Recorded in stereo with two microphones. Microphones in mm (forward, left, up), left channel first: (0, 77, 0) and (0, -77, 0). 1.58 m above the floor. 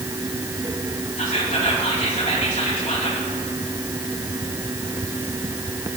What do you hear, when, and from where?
1.2 s whispering: 50° left (ahead or behind), 3.5 m